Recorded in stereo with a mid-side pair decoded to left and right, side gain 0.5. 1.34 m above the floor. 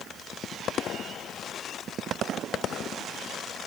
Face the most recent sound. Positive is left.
No sound to turn to.